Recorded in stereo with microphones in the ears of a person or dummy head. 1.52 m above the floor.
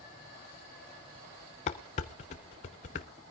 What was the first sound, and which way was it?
Dishes clattering, 30° left (ahead or behind).